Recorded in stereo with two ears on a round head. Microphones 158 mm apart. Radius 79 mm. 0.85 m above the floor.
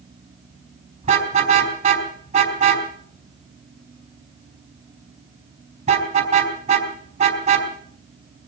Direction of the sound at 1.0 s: 40° right (ahead or behind).